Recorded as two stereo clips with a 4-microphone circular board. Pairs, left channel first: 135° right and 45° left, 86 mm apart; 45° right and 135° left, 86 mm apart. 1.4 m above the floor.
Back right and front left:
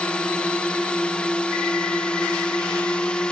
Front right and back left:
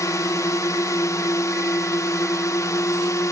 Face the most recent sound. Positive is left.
turn(degrees=-65)